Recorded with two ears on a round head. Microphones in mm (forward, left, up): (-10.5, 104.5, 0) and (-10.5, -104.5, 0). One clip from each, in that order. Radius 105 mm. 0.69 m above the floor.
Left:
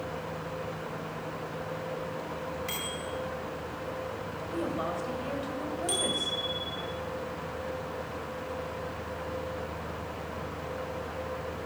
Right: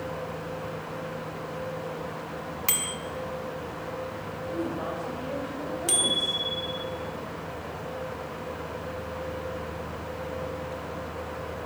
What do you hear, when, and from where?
2.7 s a bicycle bell: 40° right (ahead or behind), 2.5 m
4.5 s a woman speaking: 70° left (ahead or behind), 3.5 m
5.9 s a bicycle bell: 25° right (ahead or behind), 3 m